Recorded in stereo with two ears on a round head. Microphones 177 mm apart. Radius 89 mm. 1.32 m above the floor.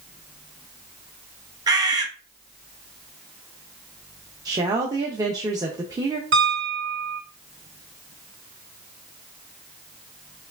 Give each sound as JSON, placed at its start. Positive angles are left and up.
{"t": 1.7, "sound": "a bird", "side_deg": -20, "distance_m": 0.7}
{"t": 4.5, "sound": "a woman speaking", "side_deg": -20, "distance_m": 0.7}
{"t": 6.3, "sound": "a piano", "side_deg": -75, "distance_m": 3.0}